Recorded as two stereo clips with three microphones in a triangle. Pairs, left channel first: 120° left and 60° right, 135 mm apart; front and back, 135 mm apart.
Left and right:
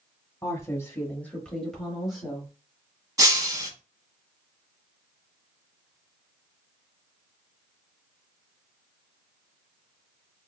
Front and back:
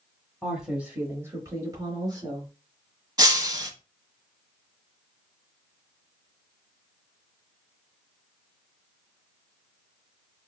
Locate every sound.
0.4 s a woman speaking: 95° left, 0.9 m; by 2.5 s 140° right, 1.2 m
3.2 s breaking glass: 120° right, 0.6 m